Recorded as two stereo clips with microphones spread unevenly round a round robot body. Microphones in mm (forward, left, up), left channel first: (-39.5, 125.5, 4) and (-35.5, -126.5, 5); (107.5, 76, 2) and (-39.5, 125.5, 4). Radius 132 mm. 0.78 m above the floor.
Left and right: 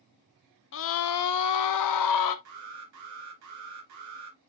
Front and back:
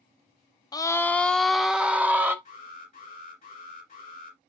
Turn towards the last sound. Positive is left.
turn(degrees=-80)